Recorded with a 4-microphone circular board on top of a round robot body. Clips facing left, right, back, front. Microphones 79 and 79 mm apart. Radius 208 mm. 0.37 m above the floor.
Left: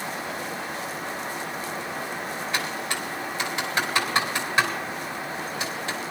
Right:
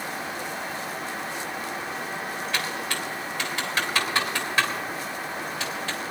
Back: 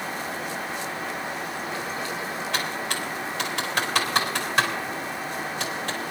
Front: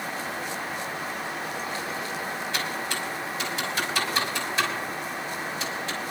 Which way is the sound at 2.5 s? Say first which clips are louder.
Left 1 dB, back 1 dB; 165° left.